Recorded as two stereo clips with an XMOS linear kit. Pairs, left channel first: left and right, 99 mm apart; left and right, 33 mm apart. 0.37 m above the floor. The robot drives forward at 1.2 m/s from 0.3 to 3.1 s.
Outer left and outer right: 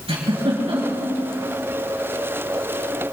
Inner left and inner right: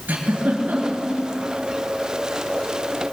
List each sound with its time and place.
0.1 s a giggle: 80° right, 4 m; by 1.1 s 75° right (ahead or behind), 4 m